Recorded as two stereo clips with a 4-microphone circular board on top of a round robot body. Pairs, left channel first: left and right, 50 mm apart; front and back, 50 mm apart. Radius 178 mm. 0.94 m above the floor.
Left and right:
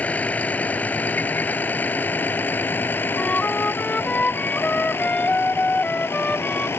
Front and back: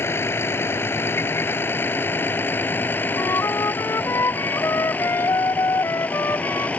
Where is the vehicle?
35° left; by 6.8 s 60° left.